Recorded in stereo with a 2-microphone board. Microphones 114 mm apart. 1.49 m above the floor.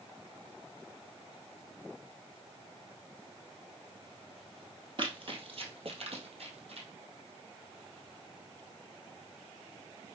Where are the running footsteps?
45° right (ahead or behind), 2 m; by 6.9 s 60° right (ahead or behind), 3 m.